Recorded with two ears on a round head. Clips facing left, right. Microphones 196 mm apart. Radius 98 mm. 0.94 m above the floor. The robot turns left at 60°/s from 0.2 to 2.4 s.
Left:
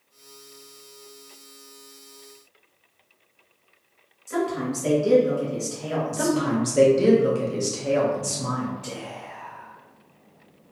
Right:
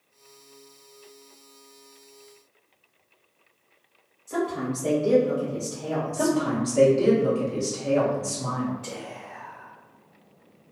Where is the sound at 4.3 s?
35° left (ahead or behind), 1.5 m.